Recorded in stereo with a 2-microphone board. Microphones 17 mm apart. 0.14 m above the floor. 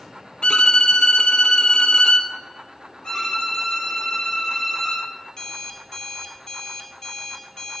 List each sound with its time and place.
0.4 s a violin: 75° left (ahead or behind), 0.7 m
3.0 s a violin: 55° left (ahead or behind), 4 m
5.3 s an alarm clock: 40° left (ahead or behind), 1.3 m